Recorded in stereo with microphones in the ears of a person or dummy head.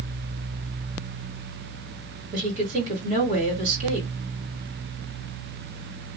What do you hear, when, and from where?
2.3 s a woman speaking: 45° right (ahead or behind), 2 m